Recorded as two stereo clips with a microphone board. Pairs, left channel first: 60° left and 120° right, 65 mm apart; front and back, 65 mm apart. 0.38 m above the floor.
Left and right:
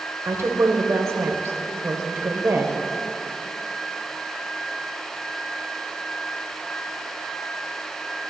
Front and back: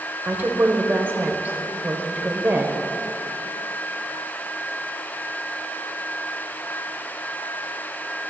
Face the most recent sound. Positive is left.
turn(degrees=-130)